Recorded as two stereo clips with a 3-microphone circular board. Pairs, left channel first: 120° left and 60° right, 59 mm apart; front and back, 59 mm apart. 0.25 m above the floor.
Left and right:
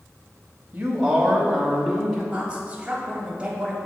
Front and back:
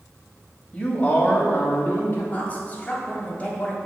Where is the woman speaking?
15° right, 1.5 m.